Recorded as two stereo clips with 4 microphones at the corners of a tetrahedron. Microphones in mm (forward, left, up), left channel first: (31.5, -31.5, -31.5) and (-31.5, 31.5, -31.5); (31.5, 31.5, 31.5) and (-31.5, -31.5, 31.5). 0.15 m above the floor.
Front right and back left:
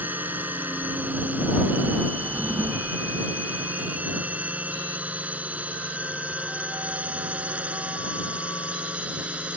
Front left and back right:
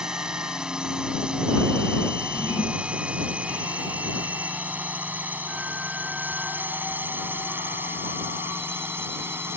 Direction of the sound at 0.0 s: 155° left.